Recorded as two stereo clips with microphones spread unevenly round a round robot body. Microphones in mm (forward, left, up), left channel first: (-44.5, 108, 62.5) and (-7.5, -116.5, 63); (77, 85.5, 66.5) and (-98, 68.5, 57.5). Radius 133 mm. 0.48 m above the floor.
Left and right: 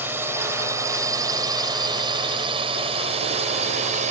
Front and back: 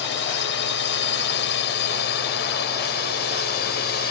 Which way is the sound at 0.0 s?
Straight ahead.